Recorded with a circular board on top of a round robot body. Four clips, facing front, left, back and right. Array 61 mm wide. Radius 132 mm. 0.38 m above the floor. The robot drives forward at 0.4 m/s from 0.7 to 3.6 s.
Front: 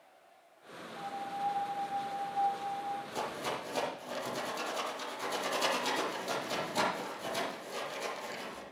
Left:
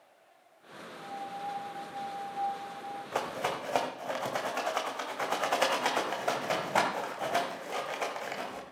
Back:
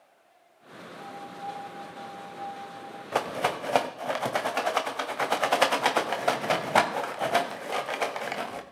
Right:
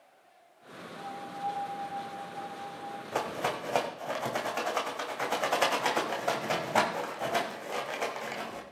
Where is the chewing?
I don't hear chewing.